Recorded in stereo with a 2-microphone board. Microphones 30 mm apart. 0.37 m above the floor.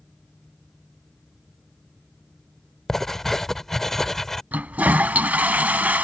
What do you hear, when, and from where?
2.9 s writing: 15° left (ahead or behind)
4.5 s a toilet flushing: 75° right (ahead or behind)